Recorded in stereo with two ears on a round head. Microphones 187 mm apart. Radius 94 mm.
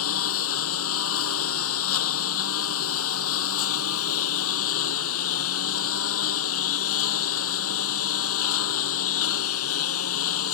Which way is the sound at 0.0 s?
80° left.